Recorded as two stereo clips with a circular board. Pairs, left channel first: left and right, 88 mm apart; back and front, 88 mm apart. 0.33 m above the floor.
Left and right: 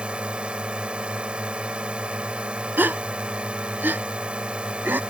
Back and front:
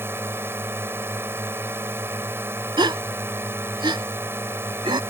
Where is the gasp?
25° right.